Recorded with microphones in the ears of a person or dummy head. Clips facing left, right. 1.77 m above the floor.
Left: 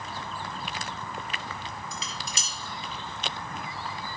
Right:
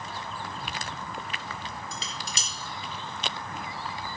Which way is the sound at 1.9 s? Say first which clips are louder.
Even; 25° right (ahead or behind).